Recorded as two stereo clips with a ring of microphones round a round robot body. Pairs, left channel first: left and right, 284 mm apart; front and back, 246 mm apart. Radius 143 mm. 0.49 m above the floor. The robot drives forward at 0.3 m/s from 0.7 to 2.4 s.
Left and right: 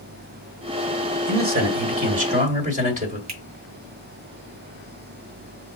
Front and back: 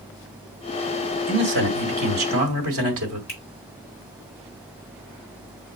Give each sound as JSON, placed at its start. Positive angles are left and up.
{"t": 1.3, "sound": "a man speaking", "azimuth_deg": -140, "distance_m": 1.2}
{"t": 3.3, "sound": "a finger snap", "azimuth_deg": -85, "distance_m": 2.0}